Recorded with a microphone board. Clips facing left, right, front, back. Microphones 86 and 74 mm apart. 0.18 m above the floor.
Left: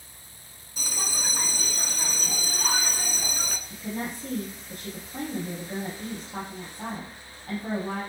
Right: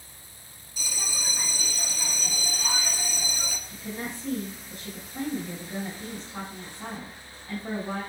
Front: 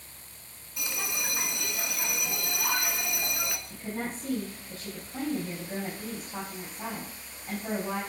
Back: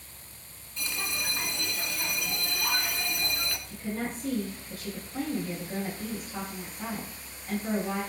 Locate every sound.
0.8 s a bell: 75° left, 1.0 m
3.7 s a woman speaking: 60° left, 4.5 m